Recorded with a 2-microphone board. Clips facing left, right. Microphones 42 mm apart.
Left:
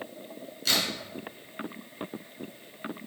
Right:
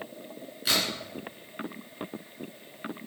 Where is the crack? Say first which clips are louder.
Even; 15° right (ahead or behind), 3 m.